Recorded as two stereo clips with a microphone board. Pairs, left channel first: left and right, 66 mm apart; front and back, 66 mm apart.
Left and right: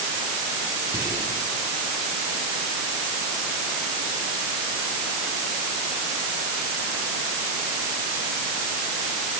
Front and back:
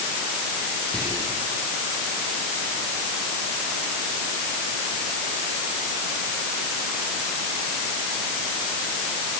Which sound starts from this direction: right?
Whispering, at 0.9 s.